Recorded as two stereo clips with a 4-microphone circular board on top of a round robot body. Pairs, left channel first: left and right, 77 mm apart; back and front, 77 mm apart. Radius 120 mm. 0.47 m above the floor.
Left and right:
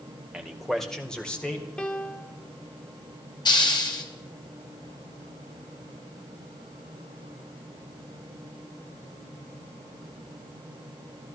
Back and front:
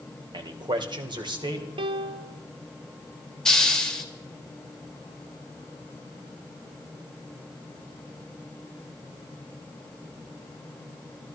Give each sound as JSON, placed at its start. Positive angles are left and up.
{"t": 0.3, "sound": "a man speaking", "azimuth_deg": -5, "distance_m": 1.9}
{"t": 1.8, "sound": "a piano", "azimuth_deg": 10, "distance_m": 0.6}
{"t": 3.5, "sound": "a hiss", "azimuth_deg": 100, "distance_m": 2.0}